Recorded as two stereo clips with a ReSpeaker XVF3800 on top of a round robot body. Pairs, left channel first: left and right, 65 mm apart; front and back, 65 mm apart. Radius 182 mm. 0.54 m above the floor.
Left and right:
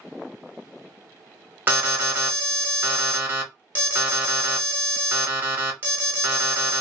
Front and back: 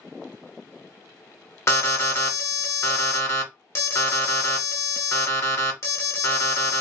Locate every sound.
1.7 s an alarm: 35° right, 1.2 m